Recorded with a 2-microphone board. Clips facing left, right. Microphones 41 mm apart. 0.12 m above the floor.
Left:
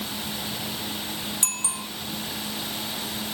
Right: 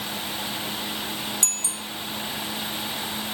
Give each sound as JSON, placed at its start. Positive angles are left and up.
{"t": 1.4, "sound": "a bicycle bell", "side_deg": 25}